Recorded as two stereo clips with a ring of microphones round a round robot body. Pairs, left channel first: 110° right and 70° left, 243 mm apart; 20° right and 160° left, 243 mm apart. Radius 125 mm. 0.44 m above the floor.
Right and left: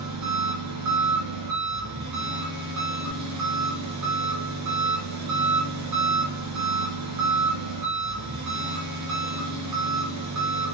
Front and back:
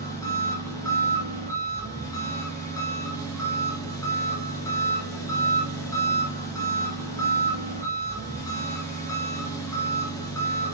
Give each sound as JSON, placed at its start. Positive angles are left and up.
{"t": 0.0, "sound": "an engine running", "azimuth_deg": 55, "distance_m": 3.5}